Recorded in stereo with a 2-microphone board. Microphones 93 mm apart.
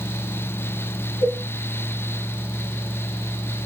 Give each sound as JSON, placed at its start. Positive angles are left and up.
{"t": 1.2, "sound": "a cowbell", "side_deg": 50, "distance_m": 9.5}